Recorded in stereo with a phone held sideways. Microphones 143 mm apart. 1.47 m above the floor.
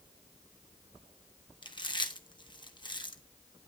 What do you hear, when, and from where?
1.6 s chewing: 30° left (ahead or behind), 1.3 m